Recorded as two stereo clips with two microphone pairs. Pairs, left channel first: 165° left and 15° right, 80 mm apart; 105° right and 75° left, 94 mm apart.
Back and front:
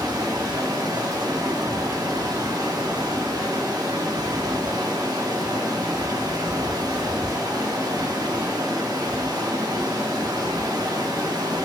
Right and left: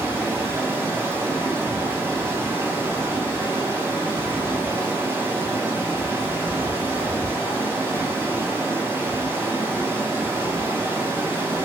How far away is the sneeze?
I don't hear a sneeze.